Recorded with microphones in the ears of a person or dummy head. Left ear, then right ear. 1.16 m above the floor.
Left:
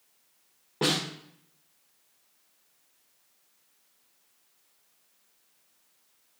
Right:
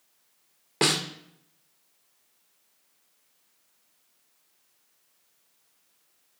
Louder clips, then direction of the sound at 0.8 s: Right 3 dB; 50° right (ahead or behind).